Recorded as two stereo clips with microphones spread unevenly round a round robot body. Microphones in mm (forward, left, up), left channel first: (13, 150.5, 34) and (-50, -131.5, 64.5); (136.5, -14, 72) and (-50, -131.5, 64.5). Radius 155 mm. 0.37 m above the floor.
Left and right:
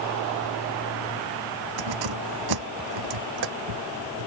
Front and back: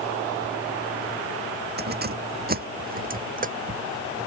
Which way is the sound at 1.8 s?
105° right.